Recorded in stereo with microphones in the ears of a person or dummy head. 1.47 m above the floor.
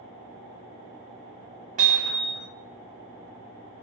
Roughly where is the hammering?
Right.